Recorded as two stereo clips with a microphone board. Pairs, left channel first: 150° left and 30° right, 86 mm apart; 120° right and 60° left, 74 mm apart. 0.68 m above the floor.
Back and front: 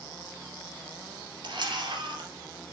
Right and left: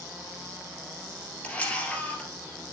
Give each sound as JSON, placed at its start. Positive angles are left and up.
{"t": 1.4, "sound": "a camera shutter", "azimuth_deg": -50, "distance_m": 2.5}